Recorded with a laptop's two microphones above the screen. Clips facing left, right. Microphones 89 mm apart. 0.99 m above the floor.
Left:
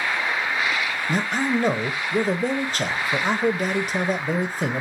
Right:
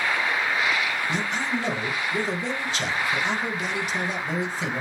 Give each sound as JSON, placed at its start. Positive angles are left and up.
{"t": 1.1, "sound": "a man speaking", "side_deg": 45, "distance_m": 0.6}